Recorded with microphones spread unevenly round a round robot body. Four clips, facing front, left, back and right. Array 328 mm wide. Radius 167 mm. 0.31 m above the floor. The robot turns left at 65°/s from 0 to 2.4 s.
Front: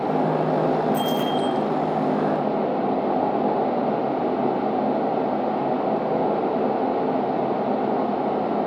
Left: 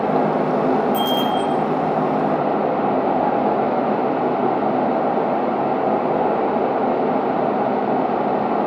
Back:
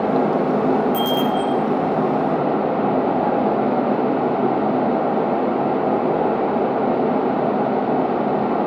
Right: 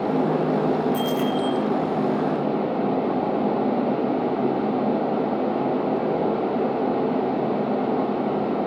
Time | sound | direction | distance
0.9 | a bicycle bell | 150° right | 7.5 m